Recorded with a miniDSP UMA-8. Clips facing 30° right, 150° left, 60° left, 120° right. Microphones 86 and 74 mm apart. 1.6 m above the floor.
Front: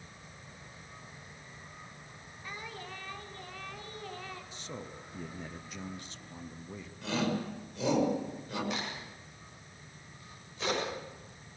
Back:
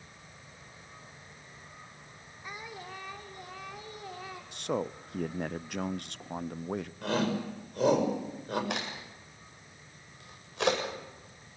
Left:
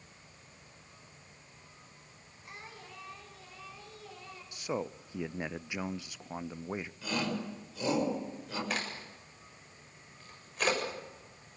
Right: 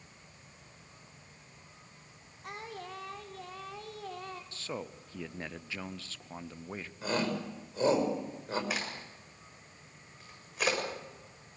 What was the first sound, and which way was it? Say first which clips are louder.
Singing: back 1 dB, right 7 dB; 135° right.